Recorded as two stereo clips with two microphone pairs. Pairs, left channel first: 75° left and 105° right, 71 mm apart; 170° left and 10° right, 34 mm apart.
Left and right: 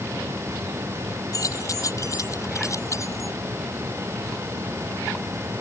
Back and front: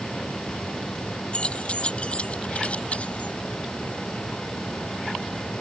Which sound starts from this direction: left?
Keys jangling, at 1.3 s.